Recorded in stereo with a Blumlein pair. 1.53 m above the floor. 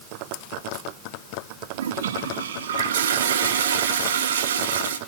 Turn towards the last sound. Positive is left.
turn(degrees=-65)